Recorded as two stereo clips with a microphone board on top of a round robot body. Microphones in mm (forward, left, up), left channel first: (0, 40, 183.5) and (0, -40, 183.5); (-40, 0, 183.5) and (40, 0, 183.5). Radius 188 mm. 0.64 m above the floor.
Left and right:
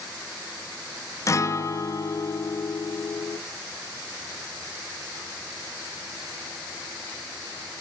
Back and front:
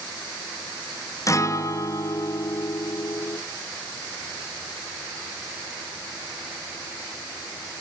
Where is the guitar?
135° left, 1.5 m.